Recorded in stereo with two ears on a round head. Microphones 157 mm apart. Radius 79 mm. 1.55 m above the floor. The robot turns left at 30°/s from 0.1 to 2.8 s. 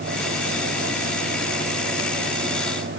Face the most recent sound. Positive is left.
No sound to turn to.